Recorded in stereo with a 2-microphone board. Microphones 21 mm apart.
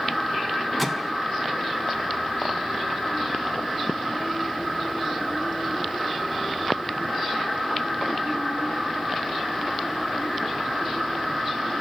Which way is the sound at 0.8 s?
5° left (ahead or behind).